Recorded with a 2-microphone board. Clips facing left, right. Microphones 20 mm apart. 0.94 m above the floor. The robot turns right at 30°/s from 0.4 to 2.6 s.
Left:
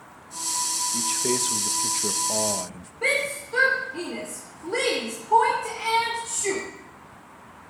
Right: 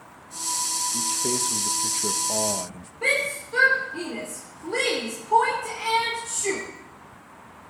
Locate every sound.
0.9 s a man speaking: 130° left, 0.8 m; by 2.9 s straight behind, 0.8 m
3.0 s a shout: 10° left (ahead or behind), 2.5 m